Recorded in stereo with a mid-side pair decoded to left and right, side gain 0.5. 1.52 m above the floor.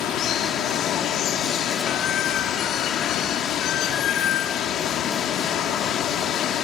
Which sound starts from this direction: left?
Running water, at 0.0 s.